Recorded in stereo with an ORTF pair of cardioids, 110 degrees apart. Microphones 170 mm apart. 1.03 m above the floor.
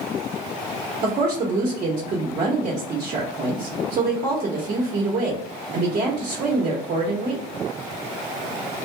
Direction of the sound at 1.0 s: 50° right.